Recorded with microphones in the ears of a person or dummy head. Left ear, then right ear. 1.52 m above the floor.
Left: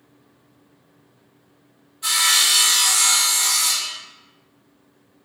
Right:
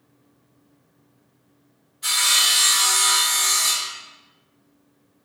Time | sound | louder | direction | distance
2.0 | sawing | left 1 dB | 5° left (ahead or behind) | 1.6 m